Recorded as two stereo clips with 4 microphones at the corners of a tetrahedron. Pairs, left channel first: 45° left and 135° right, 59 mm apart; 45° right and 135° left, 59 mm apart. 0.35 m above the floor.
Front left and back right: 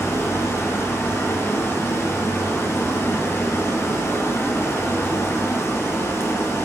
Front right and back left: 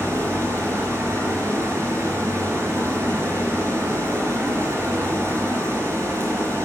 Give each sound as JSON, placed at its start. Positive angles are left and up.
{"t": 0.0, "sound": "running water", "azimuth_deg": 95, "distance_m": 5.0}